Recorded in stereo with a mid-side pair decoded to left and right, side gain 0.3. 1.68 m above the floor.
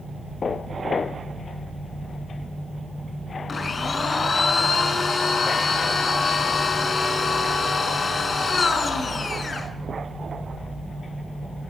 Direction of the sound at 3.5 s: 50° left.